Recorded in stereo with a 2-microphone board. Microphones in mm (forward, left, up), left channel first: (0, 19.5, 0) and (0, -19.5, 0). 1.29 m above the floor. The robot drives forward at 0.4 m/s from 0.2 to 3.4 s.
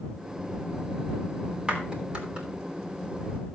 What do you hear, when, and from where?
1.7 s a clap: 30° right (ahead or behind), 3 m